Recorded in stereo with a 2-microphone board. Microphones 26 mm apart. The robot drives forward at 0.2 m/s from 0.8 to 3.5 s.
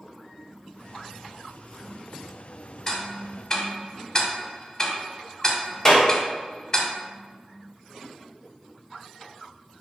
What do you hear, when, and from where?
2.9 s ticking: 20° left (ahead or behind), 0.6 m; by 6.8 s 25° left (ahead or behind), 0.5 m
5.8 s a clap: 20° left (ahead or behind), 0.8 m